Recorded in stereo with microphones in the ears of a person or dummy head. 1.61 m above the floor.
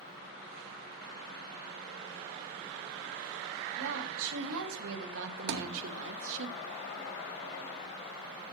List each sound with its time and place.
3.8 s a woman speaking: 80° right, 3.5 m; by 6.5 s 65° right (ahead or behind), 1.3 m
5.5 s a thud: 60° right (ahead or behind), 1.7 m